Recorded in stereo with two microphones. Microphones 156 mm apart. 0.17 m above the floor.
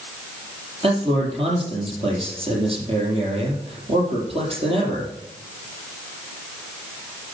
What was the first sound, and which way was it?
A man speaking, 40° right (ahead or behind).